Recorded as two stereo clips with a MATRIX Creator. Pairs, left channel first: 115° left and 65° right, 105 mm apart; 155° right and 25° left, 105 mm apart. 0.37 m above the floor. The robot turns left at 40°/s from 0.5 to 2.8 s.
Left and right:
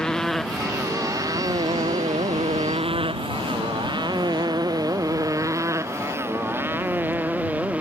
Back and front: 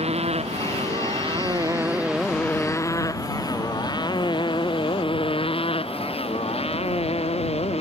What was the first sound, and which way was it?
A motorcycle, 30° left.